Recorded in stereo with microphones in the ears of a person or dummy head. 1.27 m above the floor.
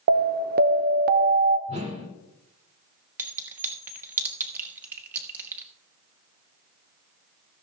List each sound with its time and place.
0.1 s an alarm: 50° right (ahead or behind), 0.7 m
1.7 s a whoosh: 40° right (ahead or behind), 2.5 m
3.2 s a clink: 15° right (ahead or behind), 1.3 m